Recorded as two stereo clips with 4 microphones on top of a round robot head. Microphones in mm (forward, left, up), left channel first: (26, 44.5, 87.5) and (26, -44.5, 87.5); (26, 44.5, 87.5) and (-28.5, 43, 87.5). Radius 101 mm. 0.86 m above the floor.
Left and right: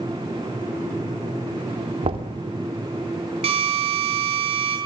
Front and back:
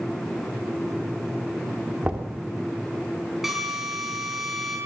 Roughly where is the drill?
Right.